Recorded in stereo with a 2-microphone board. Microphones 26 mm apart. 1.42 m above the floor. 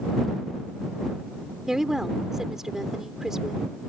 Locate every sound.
1.6 s a woman speaking: 20° right (ahead or behind)